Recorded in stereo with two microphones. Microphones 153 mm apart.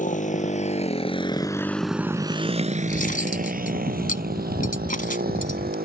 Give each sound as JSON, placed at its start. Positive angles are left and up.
{"t": 0.0, "sound": "a motorcycle", "side_deg": 60}
{"t": 2.9, "sound": "cutlery clinking", "side_deg": 65}